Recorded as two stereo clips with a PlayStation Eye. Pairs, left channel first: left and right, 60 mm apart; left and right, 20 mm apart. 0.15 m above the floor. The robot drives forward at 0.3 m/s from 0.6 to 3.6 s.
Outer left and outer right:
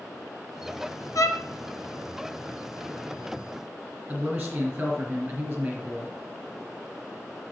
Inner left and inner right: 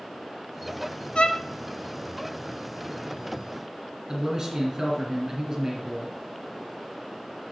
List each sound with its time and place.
1.1 s a violin: 70° left (ahead or behind), 0.5 m; by 1.4 s 65° left (ahead or behind), 0.5 m
4.1 s a man speaking: 15° right (ahead or behind), 2.5 m